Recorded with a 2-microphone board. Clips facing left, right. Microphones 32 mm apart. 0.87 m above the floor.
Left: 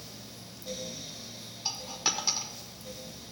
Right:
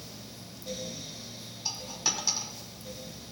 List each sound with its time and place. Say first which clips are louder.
1.6 s a dropped coin: left 1 dB; 20° left (ahead or behind), 1.1 m